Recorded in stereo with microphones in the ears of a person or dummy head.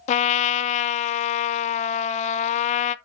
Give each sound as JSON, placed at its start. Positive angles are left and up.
{"t": 0.1, "sound": "a trumpet", "side_deg": 35, "distance_m": 0.5}